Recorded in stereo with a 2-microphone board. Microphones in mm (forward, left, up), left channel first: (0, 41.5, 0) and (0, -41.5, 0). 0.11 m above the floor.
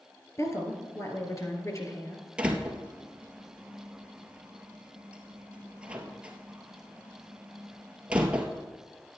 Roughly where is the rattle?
No rattle in this recording.